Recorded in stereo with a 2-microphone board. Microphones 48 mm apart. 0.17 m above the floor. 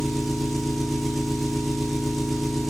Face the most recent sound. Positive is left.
turn(degrees=0)  # may be behind; listen again after turning